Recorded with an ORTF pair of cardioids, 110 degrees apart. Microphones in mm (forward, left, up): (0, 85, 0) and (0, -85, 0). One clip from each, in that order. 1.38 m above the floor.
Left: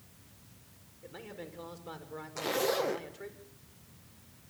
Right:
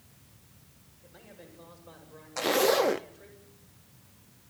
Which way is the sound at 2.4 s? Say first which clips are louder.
Right 7 dB; 35° right.